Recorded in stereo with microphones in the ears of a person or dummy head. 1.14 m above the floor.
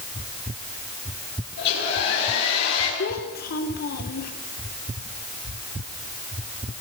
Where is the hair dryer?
65° left (ahead or behind), 9 m.